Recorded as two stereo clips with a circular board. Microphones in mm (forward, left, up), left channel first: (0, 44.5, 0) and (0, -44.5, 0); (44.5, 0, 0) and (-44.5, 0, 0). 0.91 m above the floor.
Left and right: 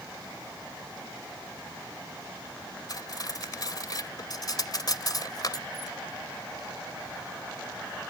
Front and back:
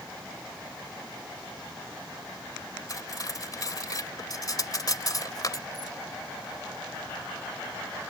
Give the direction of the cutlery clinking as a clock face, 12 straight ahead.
10 o'clock.